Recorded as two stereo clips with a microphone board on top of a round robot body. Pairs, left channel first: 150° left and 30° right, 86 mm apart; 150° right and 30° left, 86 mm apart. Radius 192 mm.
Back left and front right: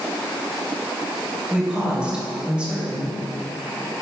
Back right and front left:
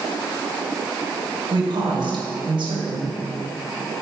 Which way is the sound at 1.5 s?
45° left.